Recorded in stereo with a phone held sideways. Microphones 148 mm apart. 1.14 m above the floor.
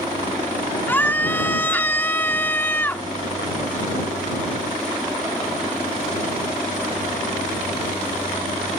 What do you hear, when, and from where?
0.9 s a scream: 15° left (ahead or behind)